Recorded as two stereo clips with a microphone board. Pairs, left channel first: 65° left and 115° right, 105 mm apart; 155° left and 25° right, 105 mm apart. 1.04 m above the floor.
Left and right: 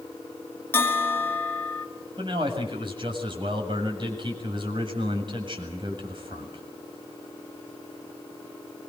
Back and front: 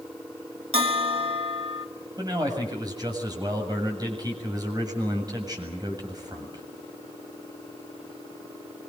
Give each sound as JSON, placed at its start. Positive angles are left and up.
{"t": 0.7, "sound": "a bell", "azimuth_deg": 0, "distance_m": 2.5}
{"t": 2.2, "sound": "a man speaking", "azimuth_deg": -75, "distance_m": 7.5}